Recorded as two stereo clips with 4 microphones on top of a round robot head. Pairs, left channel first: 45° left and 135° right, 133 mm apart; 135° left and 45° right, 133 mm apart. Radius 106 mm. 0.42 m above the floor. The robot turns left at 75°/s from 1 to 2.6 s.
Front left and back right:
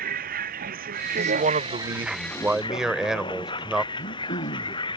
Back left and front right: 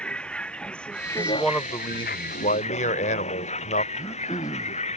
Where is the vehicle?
140° right; by 5.0 s 100° left.